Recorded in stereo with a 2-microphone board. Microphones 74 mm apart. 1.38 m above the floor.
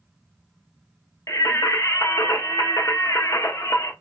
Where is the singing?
45° left (ahead or behind), 0.5 m.